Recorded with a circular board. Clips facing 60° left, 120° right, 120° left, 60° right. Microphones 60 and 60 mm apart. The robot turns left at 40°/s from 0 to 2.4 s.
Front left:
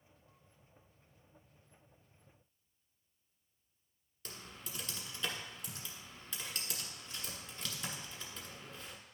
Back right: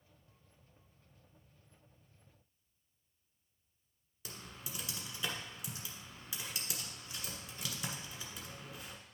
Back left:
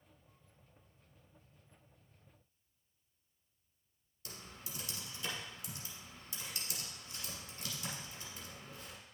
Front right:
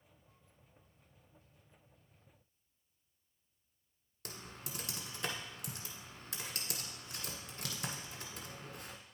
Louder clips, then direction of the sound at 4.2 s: Back right 1 dB, front right 3 dB; 40° right.